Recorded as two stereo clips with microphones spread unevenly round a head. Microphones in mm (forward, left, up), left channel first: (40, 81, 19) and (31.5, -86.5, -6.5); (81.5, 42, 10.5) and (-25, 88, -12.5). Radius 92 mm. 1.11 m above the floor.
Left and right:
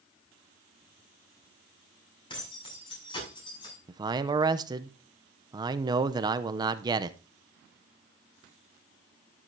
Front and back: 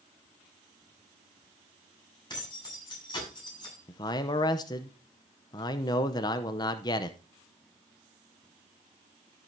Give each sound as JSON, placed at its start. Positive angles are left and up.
{"t": 2.3, "sound": "keys jangling", "azimuth_deg": 25, "distance_m": 7.0}
{"t": 3.9, "sound": "a man speaking", "azimuth_deg": -75, "distance_m": 0.6}